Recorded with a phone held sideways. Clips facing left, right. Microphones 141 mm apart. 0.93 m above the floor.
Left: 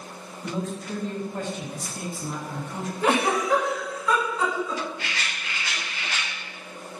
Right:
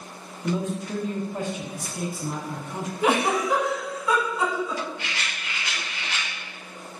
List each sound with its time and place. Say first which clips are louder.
0.4 s a man speaking: right 4 dB; 10° right (ahead or behind), 0.7 m
3.0 s a giggle: even; 10° right (ahead or behind), 1.0 m
5.0 s a rattle: even; 25° right (ahead or behind), 1.4 m